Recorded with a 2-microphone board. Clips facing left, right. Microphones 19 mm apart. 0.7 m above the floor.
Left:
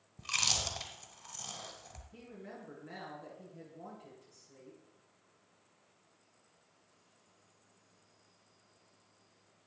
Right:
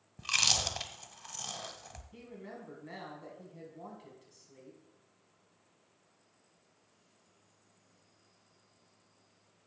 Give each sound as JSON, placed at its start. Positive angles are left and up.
{"t": 0.2, "sound": "chewing", "side_deg": -30, "distance_m": 1.1}
{"t": 2.1, "sound": "a woman speaking", "side_deg": -30, "distance_m": 6.0}